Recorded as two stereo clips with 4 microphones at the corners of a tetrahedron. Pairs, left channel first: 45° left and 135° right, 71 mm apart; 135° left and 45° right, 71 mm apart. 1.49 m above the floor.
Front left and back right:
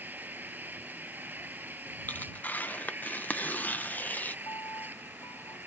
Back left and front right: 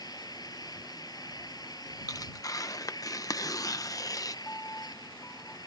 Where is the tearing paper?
105° left.